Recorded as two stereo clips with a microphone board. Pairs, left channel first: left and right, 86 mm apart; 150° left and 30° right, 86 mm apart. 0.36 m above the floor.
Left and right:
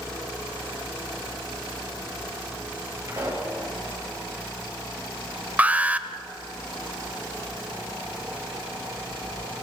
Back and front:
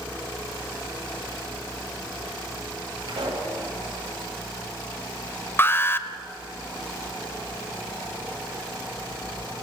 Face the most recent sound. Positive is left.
turn(degrees=-155)